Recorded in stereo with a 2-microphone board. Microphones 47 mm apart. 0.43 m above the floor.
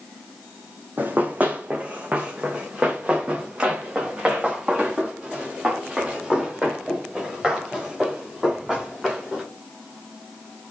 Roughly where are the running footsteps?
Right.